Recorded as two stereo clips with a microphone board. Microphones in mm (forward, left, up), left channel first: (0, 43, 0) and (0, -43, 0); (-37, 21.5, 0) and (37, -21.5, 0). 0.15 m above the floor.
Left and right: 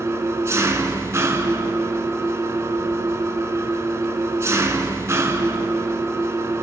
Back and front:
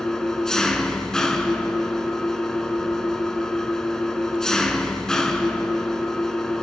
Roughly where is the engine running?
Behind right.